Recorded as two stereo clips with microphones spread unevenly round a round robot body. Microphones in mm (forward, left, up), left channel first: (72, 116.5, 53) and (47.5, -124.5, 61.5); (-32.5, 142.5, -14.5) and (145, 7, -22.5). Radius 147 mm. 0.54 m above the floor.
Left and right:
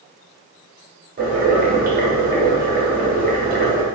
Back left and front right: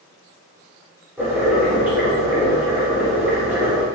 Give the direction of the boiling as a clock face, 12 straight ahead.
4 o'clock.